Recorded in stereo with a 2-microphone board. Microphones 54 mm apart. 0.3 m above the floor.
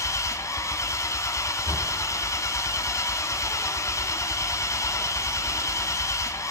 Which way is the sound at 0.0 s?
60° left (ahead or behind).